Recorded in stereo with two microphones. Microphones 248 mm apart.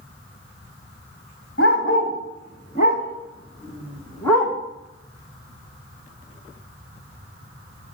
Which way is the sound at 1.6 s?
55° left (ahead or behind).